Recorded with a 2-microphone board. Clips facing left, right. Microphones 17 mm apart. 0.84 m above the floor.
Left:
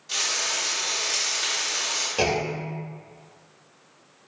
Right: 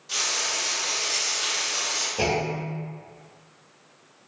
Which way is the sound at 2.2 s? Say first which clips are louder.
Left 2 dB; 35° left (ahead or behind).